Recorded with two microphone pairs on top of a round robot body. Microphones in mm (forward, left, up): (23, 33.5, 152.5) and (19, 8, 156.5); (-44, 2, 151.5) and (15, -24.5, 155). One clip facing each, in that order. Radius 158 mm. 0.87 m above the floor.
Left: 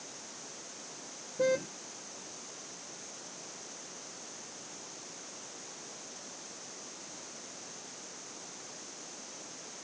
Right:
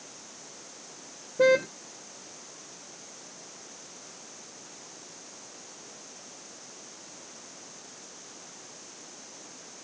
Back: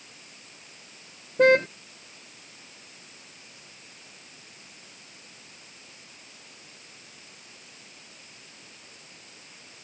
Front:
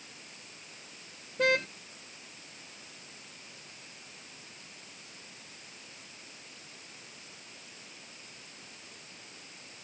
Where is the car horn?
145° right.